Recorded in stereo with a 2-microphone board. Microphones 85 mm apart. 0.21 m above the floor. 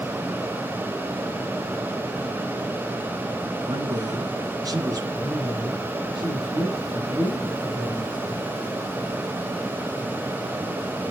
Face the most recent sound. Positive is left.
turn(degrees=-60)  # may be behind; listen again after turning